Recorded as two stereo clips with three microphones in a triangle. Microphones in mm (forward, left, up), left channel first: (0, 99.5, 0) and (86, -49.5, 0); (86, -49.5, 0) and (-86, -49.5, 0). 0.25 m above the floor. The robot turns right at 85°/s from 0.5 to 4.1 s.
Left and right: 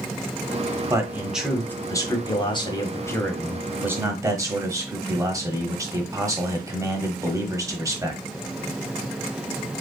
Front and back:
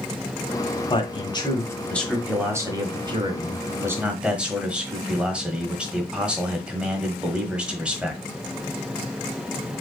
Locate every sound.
0.9 s a man speaking: 15° right, 1.3 m; by 8.2 s 105° right, 1.3 m